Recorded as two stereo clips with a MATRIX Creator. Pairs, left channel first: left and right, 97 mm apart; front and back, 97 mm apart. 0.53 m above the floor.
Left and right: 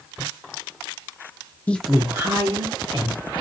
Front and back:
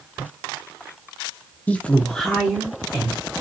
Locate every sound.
1.7 s a woman speaking: 45° left, 0.8 m; by 3.2 s 100° right, 1.7 m